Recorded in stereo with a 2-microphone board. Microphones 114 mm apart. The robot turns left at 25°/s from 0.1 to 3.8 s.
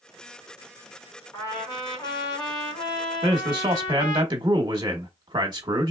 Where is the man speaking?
45° right (ahead or behind), 0.9 m; by 5.9 s 40° right (ahead or behind), 0.9 m.